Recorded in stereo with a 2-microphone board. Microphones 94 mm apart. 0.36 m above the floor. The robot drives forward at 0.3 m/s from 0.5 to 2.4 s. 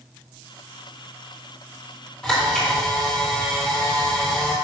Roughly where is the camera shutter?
Centre.